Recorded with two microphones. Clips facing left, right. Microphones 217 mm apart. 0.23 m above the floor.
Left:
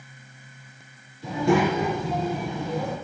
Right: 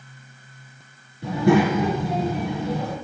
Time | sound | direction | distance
1.2 | a child speaking | 70° right (ahead or behind) | 2 m